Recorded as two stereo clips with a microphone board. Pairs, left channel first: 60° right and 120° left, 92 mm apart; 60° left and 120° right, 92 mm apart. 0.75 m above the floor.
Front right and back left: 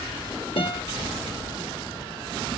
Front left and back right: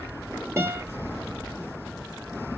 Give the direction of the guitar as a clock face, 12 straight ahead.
2 o'clock.